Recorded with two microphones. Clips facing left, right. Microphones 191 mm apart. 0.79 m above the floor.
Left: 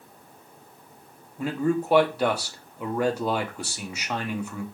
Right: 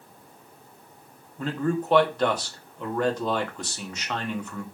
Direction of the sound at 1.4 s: 10° left (ahead or behind).